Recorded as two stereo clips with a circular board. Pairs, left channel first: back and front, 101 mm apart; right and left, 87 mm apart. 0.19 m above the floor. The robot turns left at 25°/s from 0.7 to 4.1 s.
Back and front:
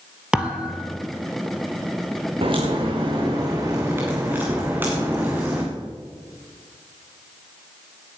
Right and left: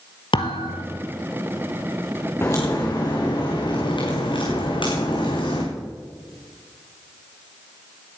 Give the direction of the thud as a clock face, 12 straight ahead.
3 o'clock.